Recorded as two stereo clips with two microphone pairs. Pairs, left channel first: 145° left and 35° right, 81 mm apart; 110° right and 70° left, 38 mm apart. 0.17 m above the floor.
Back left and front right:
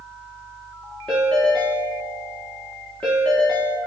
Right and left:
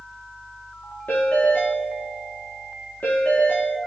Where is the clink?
No clink in this recording.